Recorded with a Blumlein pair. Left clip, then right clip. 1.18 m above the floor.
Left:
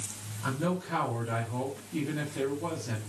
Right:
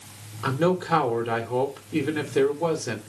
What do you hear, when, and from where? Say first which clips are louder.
0.4 s a man speaking: right 9 dB; 60° right, 3 m